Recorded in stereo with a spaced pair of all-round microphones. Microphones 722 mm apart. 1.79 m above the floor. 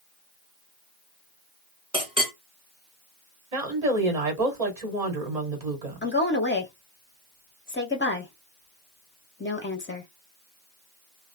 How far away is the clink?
About 1.0 m.